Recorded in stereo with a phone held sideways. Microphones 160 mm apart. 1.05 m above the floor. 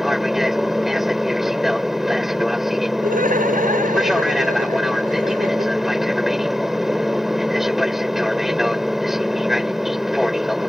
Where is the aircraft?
Centre (ahead or behind).